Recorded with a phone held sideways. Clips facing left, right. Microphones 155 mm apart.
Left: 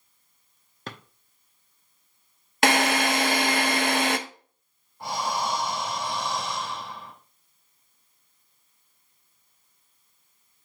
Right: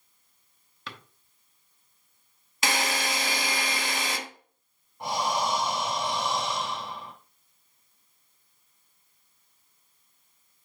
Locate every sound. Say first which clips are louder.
0.9 s a drawer: left 4 dB; 45° left (ahead or behind), 0.8 m
2.6 s a drill: left 7 dB; 65° left (ahead or behind), 0.9 m
5.0 s breathing: right 1 dB; 20° right (ahead or behind), 1.8 m